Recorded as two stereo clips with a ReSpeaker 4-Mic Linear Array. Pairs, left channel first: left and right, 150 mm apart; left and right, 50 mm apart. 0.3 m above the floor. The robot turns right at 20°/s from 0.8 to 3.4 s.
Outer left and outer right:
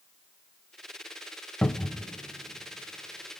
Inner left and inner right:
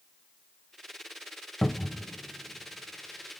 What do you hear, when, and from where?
1.6 s a cupboard door: 10° left (ahead or behind), 0.7 m; by 2.1 s 15° left (ahead or behind), 0.7 m